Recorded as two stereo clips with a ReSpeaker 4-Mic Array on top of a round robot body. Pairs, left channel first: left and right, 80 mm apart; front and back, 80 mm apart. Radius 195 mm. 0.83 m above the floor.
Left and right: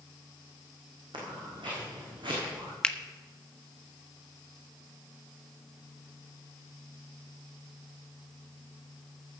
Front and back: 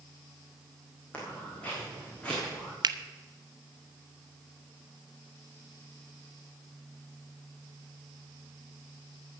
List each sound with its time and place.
1.1 s footsteps: 75° right, 3 m; by 2.7 s 80° right, 5 m
2.8 s a finger snap: 170° left, 0.8 m